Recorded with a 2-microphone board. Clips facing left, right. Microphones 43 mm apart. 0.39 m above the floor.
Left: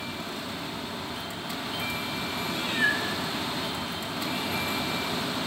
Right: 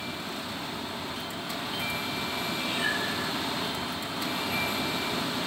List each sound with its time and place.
2.5 s a cat meowing: 50° left (ahead or behind), 1.8 m; by 5.5 s 65° left (ahead or behind), 4.5 m